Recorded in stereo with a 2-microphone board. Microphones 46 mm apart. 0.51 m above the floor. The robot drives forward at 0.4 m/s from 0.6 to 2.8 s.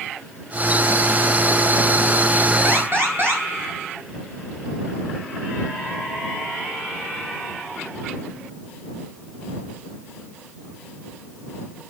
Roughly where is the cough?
No cough in this recording.